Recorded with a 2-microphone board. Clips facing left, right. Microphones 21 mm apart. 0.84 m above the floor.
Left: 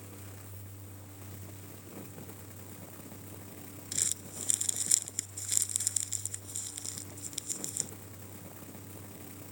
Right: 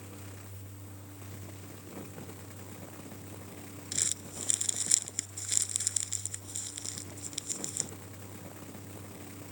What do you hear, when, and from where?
3.9 s crumpling: 10° right (ahead or behind)